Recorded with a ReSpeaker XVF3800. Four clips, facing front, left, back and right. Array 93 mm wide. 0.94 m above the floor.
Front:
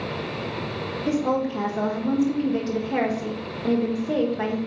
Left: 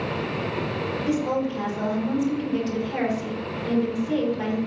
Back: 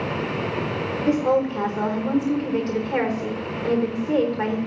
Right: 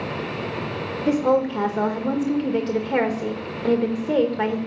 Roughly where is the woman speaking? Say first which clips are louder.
Right 7 dB, back 3 dB; right.